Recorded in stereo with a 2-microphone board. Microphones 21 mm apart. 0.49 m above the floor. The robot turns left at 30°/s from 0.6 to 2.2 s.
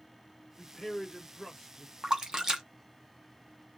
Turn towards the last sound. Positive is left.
turn(degrees=-35)  # may be behind; listen again after turning